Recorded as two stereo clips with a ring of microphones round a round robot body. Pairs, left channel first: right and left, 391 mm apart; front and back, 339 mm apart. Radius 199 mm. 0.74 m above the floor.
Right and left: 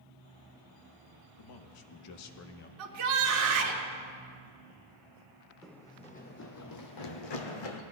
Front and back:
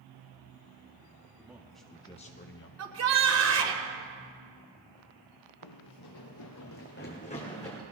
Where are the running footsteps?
Straight ahead, 1.4 m; by 7.8 s 85° right, 1.8 m.